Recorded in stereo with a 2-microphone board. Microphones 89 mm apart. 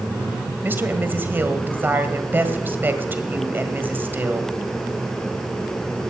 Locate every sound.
0.6 s a woman speaking: 20° right (ahead or behind), 1.7 m